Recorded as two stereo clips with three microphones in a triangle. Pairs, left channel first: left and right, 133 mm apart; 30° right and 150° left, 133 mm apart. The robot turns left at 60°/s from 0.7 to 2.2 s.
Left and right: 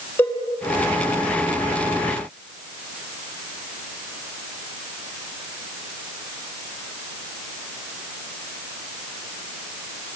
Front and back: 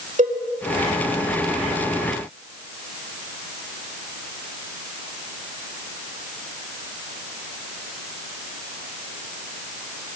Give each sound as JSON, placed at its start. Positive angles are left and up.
{"t": 0.2, "sound": "a cowbell", "azimuth_deg": 165, "distance_m": 4.0}